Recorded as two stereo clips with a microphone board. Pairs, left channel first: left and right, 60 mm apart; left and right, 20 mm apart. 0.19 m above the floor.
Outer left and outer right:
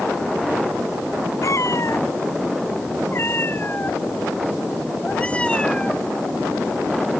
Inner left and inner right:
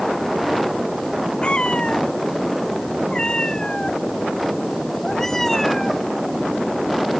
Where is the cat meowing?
60° left (ahead or behind); by 6.1 s 10° left (ahead or behind).